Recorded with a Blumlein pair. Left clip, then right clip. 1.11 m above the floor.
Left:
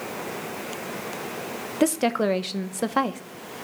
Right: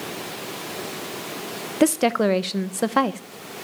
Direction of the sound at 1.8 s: 10° right.